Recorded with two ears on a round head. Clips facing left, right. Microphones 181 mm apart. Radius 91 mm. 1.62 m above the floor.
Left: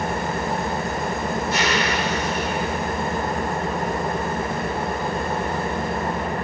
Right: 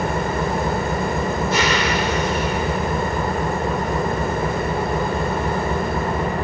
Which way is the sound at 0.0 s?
70° right (ahead or behind).